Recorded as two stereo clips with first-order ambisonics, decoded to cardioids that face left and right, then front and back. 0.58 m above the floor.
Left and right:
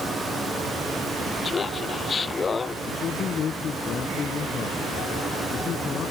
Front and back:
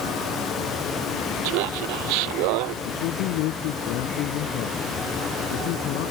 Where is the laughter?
165° left.